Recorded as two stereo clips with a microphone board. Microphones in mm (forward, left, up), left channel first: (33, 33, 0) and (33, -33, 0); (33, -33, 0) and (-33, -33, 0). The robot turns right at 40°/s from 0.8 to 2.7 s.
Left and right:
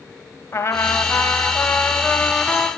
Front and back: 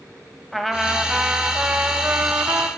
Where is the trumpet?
90° left, 1.1 m; by 2.7 s 165° left, 1.1 m.